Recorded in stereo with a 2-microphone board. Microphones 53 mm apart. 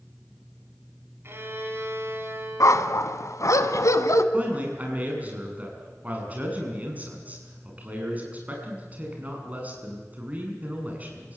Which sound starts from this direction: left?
A dog barking, at 2.6 s.